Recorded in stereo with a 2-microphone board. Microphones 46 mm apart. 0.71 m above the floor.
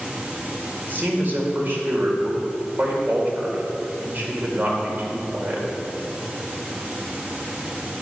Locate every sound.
0.9 s a man speaking: 40° right (ahead or behind), 2 m